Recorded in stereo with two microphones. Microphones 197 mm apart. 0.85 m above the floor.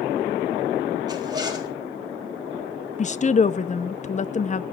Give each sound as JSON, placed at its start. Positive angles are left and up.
{"t": 1.1, "sound": "a zipper", "side_deg": -20, "distance_m": 4.0}
{"t": 3.0, "sound": "a woman speaking", "side_deg": 35, "distance_m": 0.8}